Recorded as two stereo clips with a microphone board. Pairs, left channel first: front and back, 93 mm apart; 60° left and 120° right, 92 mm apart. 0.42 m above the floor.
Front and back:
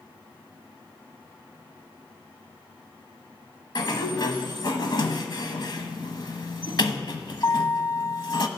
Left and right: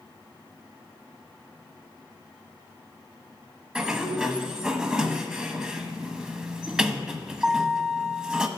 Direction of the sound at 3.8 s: 35° right.